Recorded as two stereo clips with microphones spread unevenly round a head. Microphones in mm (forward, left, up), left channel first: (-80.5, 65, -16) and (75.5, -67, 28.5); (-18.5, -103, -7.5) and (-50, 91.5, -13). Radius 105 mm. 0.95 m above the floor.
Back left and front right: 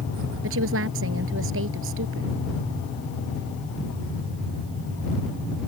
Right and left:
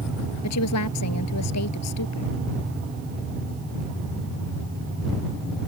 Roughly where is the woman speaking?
Right.